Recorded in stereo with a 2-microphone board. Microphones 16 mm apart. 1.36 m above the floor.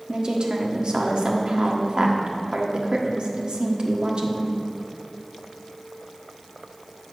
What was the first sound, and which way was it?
A woman speaking, 60° right (ahead or behind).